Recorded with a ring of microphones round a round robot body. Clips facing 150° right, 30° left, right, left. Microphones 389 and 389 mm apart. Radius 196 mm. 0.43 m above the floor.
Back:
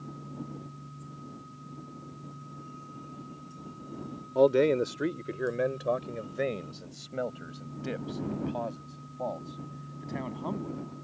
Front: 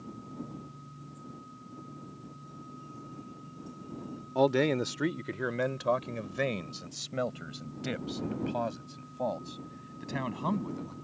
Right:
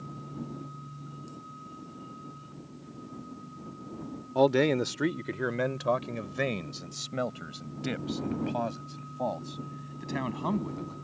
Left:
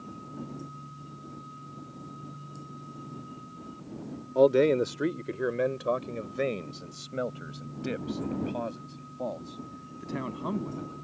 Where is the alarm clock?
I don't hear an alarm clock.